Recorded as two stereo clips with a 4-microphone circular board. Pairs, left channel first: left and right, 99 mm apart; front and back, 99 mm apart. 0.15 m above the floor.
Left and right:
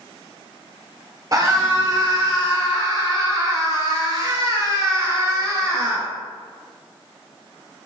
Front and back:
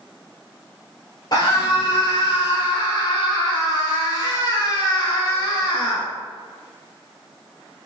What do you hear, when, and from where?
1.3 s a scream: 40° right, 3 m